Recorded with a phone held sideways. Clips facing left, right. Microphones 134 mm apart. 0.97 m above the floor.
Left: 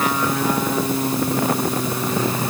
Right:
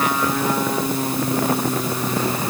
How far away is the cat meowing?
No cat meowing in this recording.